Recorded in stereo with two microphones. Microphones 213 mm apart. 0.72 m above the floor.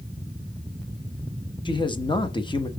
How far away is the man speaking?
About 0.8 m.